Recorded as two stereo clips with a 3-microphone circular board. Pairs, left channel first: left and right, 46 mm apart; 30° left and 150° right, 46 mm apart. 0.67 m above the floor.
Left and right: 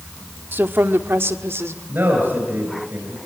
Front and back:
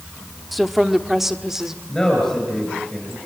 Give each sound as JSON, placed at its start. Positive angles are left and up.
{"t": 0.5, "sound": "a woman speaking", "azimuth_deg": -60, "distance_m": 1.2}
{"t": 1.9, "sound": "a man speaking", "azimuth_deg": -50, "distance_m": 8.0}